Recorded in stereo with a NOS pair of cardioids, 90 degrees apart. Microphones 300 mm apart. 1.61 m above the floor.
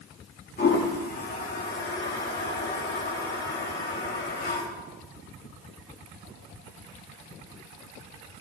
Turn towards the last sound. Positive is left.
turn(degrees=35)